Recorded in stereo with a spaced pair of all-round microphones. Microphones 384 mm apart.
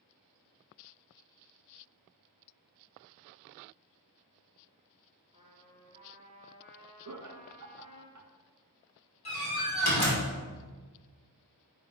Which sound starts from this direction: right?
Laughter, at 7.0 s.